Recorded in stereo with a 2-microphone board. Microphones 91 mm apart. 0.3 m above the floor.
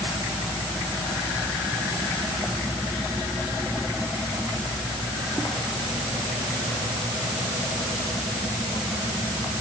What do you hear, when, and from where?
Only background noise.